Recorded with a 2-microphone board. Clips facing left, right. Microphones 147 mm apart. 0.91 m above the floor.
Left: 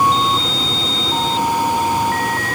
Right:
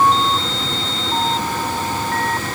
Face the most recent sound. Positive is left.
No sound to turn to.